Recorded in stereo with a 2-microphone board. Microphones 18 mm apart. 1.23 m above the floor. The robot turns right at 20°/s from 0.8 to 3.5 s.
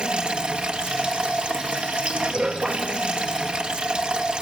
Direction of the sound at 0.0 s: 110° right.